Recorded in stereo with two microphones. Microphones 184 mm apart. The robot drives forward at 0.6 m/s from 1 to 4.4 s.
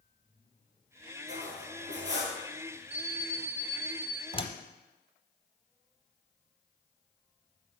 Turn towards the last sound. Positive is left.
turn(degrees=30)  # may be behind; listen again after turning